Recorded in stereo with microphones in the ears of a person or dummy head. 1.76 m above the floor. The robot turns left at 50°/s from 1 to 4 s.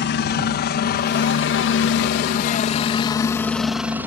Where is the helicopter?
55° left (ahead or behind); by 4.1 s 10° right (ahead or behind).